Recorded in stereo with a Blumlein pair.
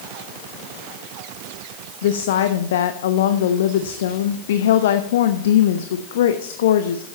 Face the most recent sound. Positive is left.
turn(degrees=60)